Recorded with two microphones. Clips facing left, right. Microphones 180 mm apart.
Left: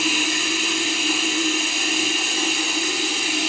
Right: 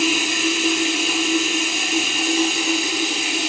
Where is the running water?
20° right (ahead or behind), 1.0 m.